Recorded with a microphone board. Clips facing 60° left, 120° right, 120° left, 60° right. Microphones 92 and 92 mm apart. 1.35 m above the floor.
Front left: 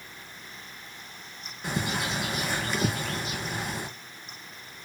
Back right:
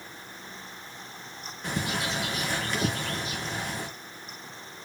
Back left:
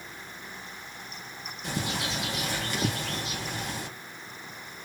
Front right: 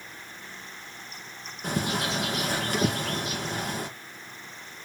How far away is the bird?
About 1.4 m.